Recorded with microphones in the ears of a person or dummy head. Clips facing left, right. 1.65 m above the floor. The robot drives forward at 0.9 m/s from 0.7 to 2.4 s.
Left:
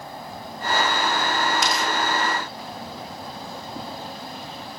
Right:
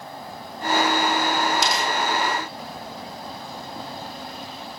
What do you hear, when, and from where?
1.6 s tearing paper: 85° right, 6.5 m